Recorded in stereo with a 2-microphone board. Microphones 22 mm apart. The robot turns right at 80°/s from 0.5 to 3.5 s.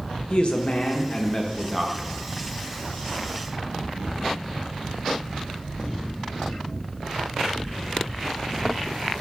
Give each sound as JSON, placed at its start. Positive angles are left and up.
{"t": 0.3, "sound": "a man speaking", "azimuth_deg": 80, "distance_m": 0.9}